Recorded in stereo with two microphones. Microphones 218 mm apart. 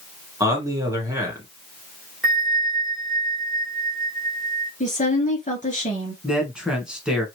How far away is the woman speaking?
About 2.0 m.